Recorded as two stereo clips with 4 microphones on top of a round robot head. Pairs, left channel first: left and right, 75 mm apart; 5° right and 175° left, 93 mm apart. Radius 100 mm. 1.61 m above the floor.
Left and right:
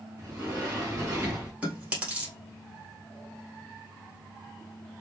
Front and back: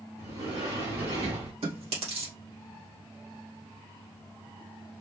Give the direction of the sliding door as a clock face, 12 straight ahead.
5 o'clock.